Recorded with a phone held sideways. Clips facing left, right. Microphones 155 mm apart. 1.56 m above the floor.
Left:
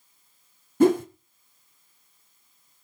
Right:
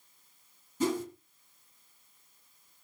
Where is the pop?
I don't hear a pop.